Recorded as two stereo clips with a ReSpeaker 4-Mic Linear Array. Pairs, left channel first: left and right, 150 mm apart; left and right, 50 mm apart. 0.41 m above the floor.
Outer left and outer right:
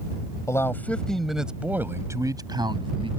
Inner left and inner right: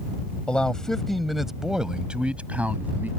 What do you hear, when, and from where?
0.5 s a man speaking: 20° left (ahead or behind); by 3.1 s 35° right (ahead or behind)